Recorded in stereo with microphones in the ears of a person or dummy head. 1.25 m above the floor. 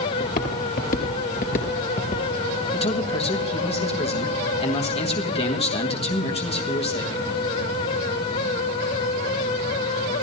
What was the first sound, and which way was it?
Footsteps, 50° left (ahead or behind).